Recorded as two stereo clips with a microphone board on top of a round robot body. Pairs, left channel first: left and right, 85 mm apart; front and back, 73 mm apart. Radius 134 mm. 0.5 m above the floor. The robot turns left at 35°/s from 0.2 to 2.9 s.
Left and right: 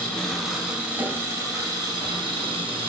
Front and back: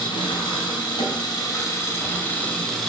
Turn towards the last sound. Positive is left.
turn(degrees=-90)